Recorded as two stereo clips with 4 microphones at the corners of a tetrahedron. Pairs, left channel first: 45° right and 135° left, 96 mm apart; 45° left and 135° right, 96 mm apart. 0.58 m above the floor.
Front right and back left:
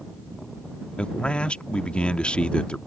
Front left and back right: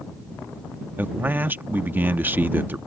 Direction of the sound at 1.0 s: 100° right.